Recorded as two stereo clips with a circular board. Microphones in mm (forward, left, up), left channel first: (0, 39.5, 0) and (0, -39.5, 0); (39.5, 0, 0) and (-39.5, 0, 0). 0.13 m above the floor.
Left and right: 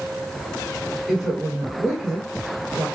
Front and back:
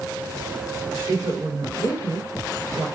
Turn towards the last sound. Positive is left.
turn(degrees=-175)